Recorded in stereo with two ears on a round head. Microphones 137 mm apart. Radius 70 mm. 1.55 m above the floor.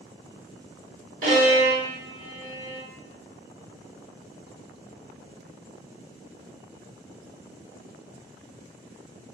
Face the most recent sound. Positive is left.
turn(degrees=-65)  # may be behind; listen again after turning